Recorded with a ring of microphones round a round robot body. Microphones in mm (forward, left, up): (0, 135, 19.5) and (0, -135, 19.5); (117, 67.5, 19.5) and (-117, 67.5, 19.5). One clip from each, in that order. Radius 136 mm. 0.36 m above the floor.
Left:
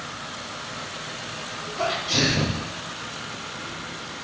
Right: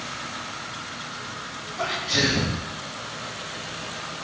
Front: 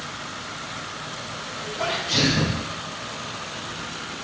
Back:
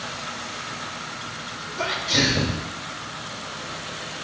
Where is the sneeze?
160° right, 2 m.